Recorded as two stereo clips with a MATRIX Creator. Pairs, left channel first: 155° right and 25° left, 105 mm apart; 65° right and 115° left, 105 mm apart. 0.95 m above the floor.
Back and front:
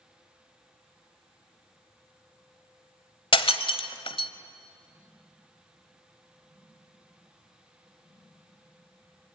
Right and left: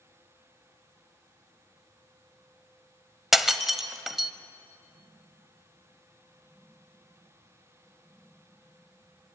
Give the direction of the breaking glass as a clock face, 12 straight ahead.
5 o'clock.